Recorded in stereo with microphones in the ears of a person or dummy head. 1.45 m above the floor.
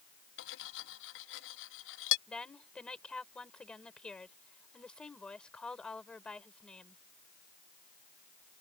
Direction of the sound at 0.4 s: 65° left (ahead or behind).